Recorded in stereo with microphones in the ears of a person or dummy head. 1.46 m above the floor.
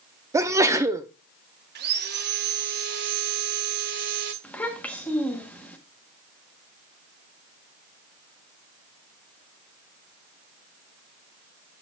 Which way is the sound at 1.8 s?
55° right (ahead or behind).